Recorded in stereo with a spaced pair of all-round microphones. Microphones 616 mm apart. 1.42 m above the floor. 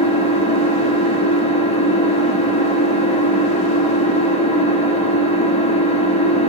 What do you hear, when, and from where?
0.0 s an engine running: 10° left (ahead or behind), 1.0 m